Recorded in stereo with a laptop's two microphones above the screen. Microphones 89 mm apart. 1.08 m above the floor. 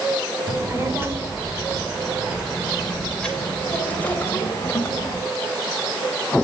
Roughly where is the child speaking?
Right.